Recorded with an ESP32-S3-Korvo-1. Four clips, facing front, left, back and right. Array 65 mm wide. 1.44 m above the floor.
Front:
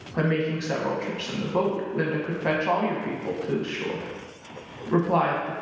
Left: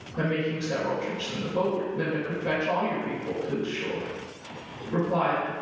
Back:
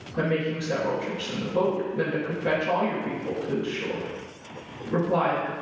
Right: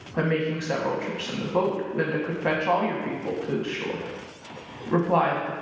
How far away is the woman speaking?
About 0.9 m.